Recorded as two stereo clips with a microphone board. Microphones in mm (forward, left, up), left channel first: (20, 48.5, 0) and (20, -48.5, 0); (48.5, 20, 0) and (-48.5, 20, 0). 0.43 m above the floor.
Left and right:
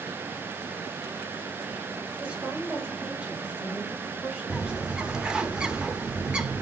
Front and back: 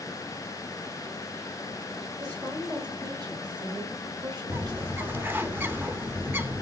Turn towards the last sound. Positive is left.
turn(degrees=-155)